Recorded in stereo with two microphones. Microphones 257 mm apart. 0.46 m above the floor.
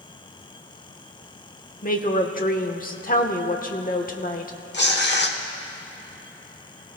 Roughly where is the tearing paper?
Left.